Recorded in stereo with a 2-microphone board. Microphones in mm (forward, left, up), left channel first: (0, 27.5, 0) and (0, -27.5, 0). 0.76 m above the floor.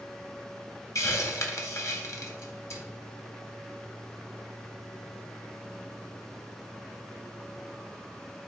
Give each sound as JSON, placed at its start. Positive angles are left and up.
{"t": 0.9, "sound": "a hiss", "side_deg": 65, "distance_m": 0.8}